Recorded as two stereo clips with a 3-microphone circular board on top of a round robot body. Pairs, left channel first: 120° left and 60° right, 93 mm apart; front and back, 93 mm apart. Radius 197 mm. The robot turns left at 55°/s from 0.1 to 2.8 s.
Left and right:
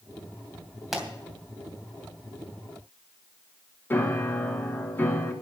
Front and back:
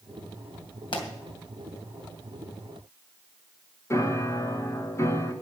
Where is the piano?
55° left, 1.9 m.